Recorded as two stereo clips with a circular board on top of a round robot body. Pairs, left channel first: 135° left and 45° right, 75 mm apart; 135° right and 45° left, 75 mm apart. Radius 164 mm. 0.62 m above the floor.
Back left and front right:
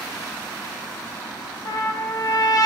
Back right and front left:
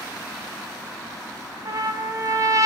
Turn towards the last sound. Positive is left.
turn(degrees=90)